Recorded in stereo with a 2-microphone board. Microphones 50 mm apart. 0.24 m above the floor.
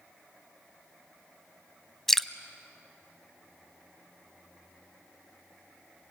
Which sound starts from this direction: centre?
Dripping, at 2.1 s.